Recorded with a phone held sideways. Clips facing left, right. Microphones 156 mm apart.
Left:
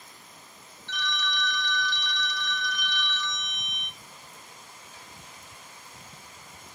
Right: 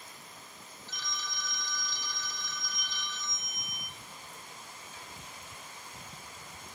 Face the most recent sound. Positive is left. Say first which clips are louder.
# left 10 dB
turn(degrees=70)  # may be behind; listen again after turning